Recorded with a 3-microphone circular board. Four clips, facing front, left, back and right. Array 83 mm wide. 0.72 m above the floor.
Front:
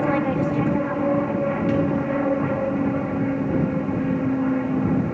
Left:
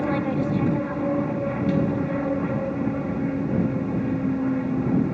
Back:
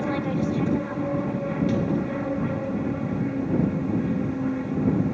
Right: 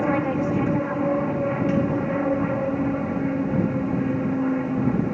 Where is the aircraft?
30° right.